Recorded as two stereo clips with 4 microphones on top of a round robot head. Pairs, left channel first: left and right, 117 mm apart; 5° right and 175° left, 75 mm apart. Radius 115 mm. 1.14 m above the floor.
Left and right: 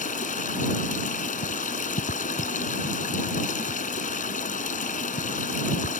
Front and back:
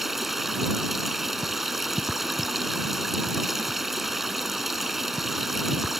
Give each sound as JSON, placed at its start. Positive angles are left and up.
{"t": 0.0, "sound": "running water", "azimuth_deg": 90}